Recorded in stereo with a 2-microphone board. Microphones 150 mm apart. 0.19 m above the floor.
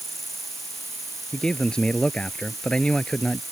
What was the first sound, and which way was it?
An insect, centre (ahead or behind).